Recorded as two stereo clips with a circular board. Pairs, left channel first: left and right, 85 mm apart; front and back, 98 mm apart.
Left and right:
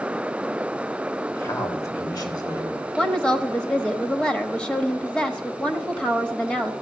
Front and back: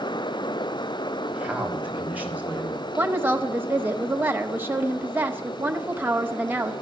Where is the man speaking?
115° left, 1.5 m; by 2.9 s 110° left, 3 m.